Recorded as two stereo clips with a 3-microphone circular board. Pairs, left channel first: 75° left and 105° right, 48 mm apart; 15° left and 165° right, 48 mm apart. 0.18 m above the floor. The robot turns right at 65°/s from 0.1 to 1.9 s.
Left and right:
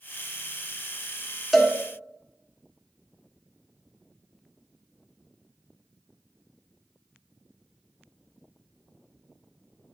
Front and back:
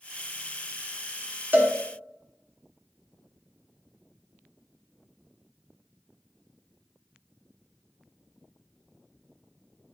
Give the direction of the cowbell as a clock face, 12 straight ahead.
7 o'clock.